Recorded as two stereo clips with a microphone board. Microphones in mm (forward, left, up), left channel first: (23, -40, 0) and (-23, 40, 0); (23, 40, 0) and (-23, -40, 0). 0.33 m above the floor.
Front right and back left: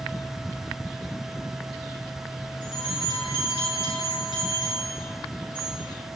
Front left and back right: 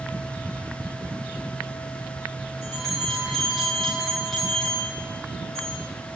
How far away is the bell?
About 8.5 m.